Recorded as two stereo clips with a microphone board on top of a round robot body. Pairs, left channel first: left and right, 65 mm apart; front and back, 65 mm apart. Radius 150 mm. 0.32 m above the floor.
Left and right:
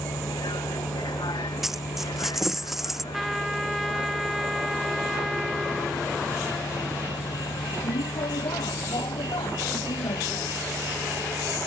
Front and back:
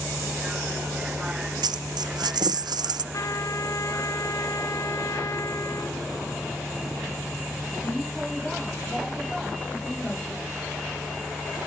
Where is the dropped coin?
175° right.